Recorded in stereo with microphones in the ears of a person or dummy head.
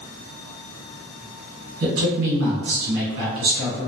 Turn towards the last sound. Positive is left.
turn(degrees=-55)  # may be behind; listen again after turning